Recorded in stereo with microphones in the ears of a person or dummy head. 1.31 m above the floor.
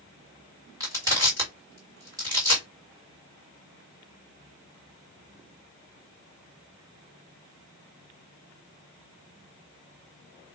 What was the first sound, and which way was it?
Crushing, 20° right (ahead or behind).